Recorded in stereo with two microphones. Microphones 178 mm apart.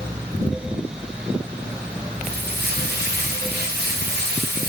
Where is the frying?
70° right (ahead or behind), 7 m.